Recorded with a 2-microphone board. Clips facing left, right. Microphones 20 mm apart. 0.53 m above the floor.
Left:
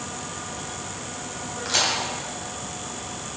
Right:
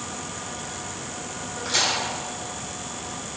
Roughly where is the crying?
No crying in this recording.